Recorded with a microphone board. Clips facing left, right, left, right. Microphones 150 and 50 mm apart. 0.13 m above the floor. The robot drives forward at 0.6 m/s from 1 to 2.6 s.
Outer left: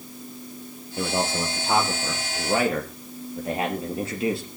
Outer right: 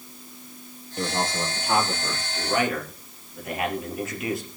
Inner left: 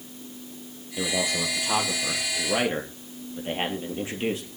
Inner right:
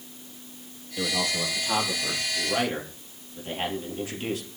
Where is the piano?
I don't hear a piano.